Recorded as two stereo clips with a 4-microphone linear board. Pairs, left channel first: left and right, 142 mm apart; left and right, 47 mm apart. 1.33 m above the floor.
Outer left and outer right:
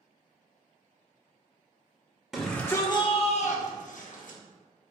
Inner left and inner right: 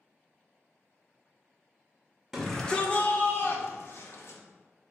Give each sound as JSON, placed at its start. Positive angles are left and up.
{"t": 2.3, "sound": "a shout", "side_deg": -5, "distance_m": 0.7}